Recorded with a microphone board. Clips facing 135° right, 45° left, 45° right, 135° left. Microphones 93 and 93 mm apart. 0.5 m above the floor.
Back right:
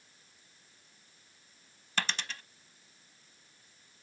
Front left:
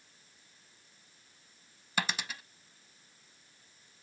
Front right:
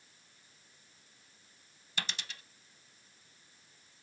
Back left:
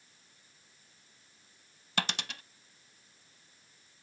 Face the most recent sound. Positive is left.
turn(degrees=125)